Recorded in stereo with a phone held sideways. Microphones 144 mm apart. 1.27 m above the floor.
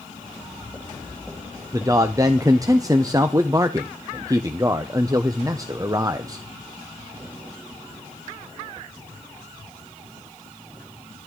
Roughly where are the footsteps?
Centre.